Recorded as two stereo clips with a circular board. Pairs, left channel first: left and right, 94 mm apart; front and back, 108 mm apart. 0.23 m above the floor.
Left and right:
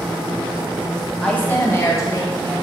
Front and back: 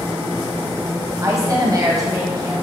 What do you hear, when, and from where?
1.2 s a woman speaking: 160° left, 1.4 m; by 2.5 s 130° left, 3 m